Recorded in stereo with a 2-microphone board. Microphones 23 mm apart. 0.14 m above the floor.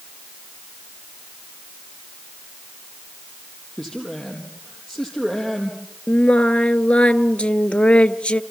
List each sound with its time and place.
3.8 s a man speaking: 20° left (ahead or behind), 3.5 m
6.1 s singing: 60° left (ahead or behind), 0.6 m